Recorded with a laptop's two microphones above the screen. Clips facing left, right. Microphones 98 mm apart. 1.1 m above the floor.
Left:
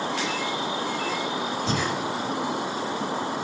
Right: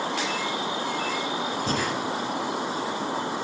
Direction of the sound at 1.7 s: 40° right (ahead or behind).